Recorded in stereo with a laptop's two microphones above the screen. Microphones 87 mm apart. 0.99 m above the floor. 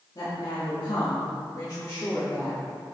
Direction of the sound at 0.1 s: 55° left (ahead or behind).